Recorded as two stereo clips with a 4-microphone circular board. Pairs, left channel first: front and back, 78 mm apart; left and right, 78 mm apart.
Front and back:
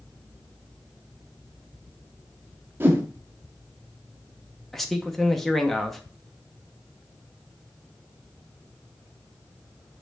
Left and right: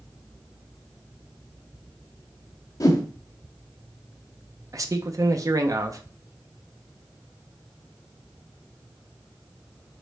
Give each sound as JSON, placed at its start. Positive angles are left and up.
{"t": 2.8, "sound": "a whoosh", "azimuth_deg": 120, "distance_m": 0.8}
{"t": 4.7, "sound": "a man speaking", "azimuth_deg": -85, "distance_m": 0.5}